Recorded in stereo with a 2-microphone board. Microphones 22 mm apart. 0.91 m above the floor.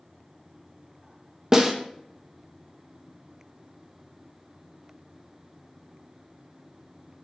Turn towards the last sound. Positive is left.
turn(degrees=-25)  # may be behind; listen again after turning